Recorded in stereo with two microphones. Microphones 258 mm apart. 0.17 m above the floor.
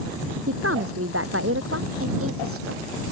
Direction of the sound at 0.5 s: 60° right (ahead or behind).